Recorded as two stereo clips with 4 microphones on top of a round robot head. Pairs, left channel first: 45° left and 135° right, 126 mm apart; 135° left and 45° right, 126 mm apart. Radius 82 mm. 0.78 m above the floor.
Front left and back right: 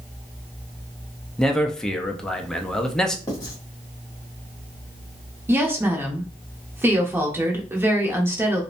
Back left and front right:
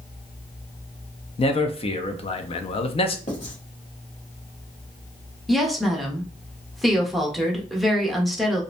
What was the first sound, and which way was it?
A man speaking, 130° left.